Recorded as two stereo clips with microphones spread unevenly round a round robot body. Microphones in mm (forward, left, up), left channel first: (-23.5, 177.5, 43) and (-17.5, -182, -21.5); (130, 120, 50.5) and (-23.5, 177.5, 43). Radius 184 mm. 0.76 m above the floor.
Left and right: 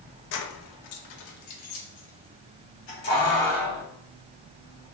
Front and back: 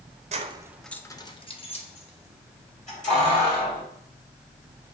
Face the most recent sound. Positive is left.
turn(degrees=25)